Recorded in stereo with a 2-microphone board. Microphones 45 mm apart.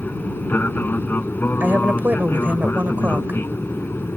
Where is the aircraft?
45° left (ahead or behind); by 4.2 s 55° left (ahead or behind).